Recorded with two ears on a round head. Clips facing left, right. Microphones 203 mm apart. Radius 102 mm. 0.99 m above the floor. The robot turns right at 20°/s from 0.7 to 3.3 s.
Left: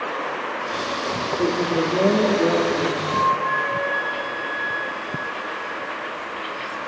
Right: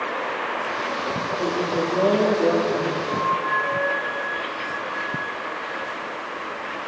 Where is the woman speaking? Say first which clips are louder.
Left 3 dB; 125° left, 2.5 m; by 3.1 s 160° left, 2.5 m.